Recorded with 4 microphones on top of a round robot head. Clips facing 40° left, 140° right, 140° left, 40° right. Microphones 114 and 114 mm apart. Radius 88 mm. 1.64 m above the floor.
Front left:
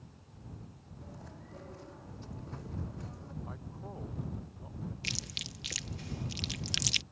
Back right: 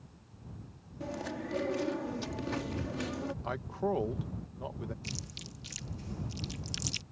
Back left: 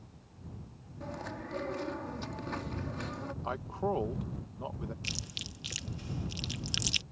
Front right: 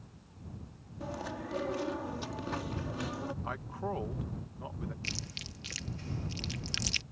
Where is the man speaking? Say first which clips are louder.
Back right 13 dB, back left 4 dB; 155° right.